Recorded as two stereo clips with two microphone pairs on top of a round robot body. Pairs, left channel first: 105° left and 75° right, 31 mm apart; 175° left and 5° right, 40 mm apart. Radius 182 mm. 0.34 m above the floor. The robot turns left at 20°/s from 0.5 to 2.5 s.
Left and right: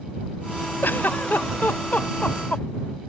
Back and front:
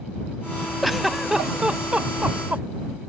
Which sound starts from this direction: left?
A giggle, at 0.8 s.